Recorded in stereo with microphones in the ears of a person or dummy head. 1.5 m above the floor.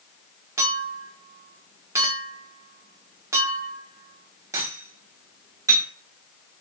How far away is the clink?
About 1.1 m.